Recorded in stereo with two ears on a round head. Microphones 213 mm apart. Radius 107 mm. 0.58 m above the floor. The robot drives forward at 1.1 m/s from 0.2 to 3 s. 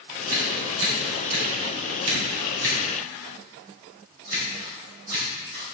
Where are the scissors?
60° right (ahead or behind), 2.5 m; by 5.6 s 45° right (ahead or behind), 3.5 m.